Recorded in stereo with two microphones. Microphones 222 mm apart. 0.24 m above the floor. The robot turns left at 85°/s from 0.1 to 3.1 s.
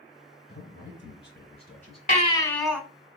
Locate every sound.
0.5 s a man speaking: 125° left, 3 m; by 2.0 s 5° right, 3 m
2.1 s a baby crying: 50° left, 0.8 m; by 2.8 s 10° right, 0.8 m